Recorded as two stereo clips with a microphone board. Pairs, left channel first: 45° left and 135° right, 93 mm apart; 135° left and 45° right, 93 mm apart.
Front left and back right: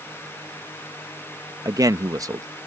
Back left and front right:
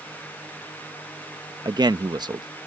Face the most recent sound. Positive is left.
turn(degrees=-85)